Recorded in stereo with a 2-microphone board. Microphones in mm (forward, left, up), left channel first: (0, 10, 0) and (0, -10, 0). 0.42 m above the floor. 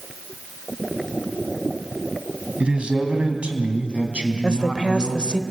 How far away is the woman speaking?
About 1.3 m.